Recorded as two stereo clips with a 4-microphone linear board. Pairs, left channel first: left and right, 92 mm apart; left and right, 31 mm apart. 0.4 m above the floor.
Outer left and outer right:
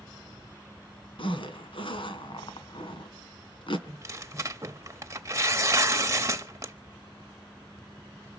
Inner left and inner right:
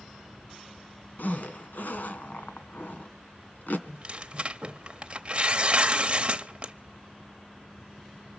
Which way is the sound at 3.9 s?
35° right (ahead or behind).